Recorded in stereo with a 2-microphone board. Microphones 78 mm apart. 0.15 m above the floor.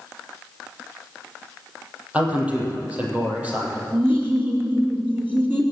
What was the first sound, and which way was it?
A man speaking, 20° right (ahead or behind).